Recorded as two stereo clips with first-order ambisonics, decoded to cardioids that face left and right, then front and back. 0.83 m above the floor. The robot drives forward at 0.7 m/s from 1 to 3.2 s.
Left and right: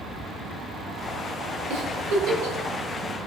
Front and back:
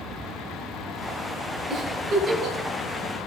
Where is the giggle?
105° right, 3.5 m; by 2.6 s 115° right, 3.5 m.